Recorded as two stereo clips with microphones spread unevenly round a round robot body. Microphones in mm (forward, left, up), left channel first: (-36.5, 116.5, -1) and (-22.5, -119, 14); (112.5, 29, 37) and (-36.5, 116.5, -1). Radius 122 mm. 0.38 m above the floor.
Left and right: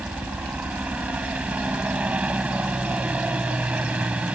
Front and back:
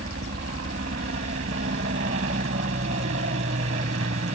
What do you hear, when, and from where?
0.0 s a helicopter: 170° right